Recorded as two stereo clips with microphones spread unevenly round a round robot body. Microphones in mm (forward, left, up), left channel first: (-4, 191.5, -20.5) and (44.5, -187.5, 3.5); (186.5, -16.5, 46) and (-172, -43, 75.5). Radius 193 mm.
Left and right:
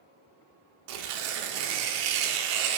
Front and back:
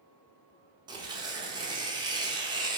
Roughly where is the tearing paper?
Right.